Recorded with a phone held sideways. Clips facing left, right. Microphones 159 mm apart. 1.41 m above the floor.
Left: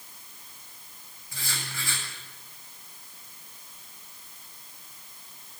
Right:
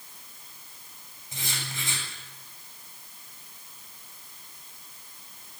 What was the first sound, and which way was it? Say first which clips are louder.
Writing: right 1 dB; 20° right (ahead or behind).